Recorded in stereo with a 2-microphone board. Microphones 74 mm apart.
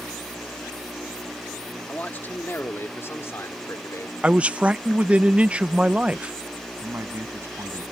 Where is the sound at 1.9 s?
25° left (ahead or behind); by 4.1 s 45° left (ahead or behind).